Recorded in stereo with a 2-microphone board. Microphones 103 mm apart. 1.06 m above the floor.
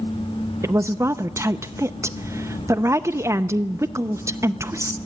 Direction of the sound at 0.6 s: 25° right (ahead or behind).